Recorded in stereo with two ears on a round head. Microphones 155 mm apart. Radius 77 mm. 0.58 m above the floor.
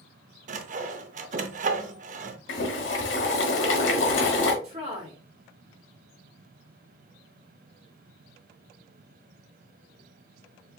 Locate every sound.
0.5 s sawing: 50° right (ahead or behind), 0.6 m
2.5 s boiling: 85° left, 1.3 m
4.6 s a woman speaking: 40° right (ahead or behind), 2.5 m